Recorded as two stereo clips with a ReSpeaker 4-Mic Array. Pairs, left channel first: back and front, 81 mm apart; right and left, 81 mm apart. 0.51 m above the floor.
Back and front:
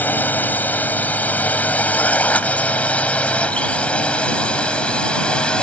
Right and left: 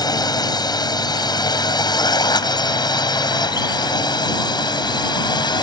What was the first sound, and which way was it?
A drone, 115° right.